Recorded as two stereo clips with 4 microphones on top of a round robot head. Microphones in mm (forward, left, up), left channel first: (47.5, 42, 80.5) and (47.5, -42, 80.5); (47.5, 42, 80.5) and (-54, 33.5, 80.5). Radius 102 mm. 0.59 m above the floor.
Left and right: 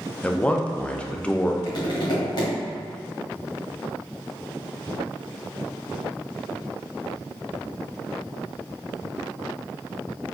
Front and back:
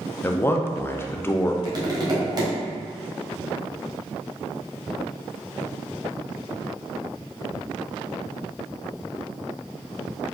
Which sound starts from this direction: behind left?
Tapping, at 1.6 s.